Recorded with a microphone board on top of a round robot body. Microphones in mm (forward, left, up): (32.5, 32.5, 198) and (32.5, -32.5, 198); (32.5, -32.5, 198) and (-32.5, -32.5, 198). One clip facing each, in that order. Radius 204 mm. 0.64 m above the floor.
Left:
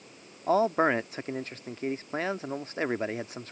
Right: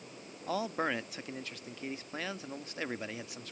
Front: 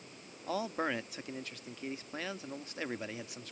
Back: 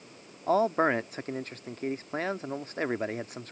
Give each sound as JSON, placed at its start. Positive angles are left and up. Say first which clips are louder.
{"t": 0.5, "sound": "a man speaking", "louder": "left 10 dB, back 10 dB", "azimuth_deg": 140}